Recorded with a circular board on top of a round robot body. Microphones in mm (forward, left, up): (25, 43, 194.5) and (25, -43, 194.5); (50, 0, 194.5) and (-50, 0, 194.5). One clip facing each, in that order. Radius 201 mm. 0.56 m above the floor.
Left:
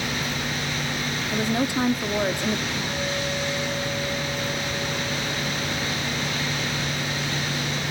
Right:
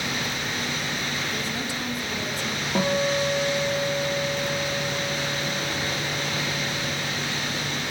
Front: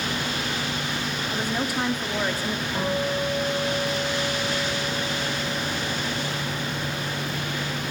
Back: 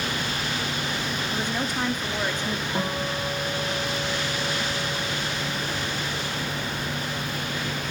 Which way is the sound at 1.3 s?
80° left.